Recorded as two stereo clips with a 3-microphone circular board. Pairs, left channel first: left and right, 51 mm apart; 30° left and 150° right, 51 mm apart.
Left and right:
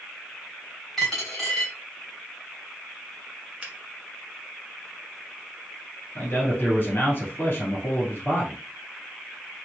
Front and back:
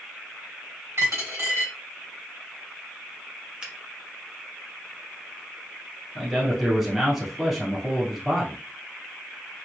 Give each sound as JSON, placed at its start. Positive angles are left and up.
{"t": 1.0, "sound": "a dropped coin", "azimuth_deg": 175, "distance_m": 2.5}
{"t": 3.6, "sound": "a finger snap", "azimuth_deg": -105, "distance_m": 1.1}
{"t": 6.2, "sound": "a man speaking", "azimuth_deg": 130, "distance_m": 1.8}